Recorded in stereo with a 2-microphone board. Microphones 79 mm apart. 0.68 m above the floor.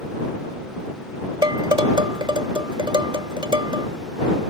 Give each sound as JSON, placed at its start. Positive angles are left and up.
{"t": 1.4, "sound": "dishes clattering", "side_deg": -75}